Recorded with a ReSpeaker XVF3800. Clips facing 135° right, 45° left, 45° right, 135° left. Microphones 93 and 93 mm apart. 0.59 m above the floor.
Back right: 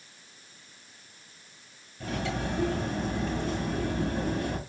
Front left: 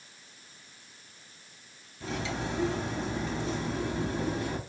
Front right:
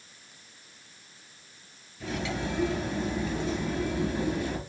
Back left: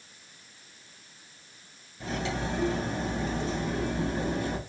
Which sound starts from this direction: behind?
Cutlery clinking, at 2.0 s.